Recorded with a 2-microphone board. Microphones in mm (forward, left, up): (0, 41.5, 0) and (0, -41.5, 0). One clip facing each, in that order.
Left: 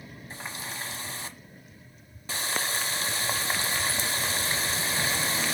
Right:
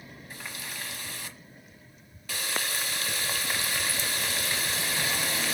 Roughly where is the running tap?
Left.